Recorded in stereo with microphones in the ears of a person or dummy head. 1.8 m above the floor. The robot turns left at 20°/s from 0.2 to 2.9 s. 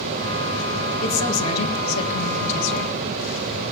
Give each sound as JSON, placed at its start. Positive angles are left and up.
{"t": 1.0, "sound": "a woman speaking", "azimuth_deg": 100, "distance_m": 2.5}